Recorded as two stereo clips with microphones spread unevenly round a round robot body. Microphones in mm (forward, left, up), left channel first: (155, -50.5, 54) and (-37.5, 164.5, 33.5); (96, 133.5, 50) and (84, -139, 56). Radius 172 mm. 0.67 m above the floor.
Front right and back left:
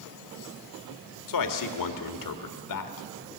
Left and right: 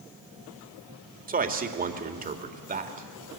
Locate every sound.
1.3 s a man speaking: 30° right, 2 m